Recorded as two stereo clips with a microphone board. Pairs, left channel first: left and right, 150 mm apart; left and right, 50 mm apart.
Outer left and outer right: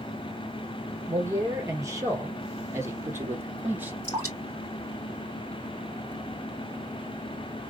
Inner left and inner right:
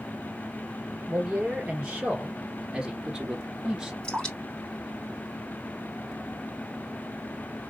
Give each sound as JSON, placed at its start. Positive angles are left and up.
{"t": 1.1, "sound": "a man speaking", "side_deg": -25, "distance_m": 3.0}
{"t": 4.0, "sound": "dripping", "side_deg": 20, "distance_m": 3.5}